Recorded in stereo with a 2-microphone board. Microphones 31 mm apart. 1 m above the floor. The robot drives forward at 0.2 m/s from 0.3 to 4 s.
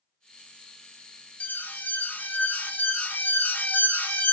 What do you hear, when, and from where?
1.4 s an alarm: 65° left (ahead or behind), 0.9 m; by 4.3 s 70° left (ahead or behind), 0.9 m